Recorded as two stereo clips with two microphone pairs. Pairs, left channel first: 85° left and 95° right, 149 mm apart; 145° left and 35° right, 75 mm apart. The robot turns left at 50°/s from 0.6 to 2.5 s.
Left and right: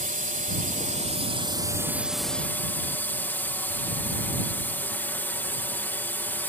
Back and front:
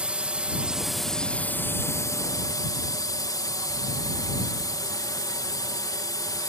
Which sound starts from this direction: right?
A drone, at 0.0 s.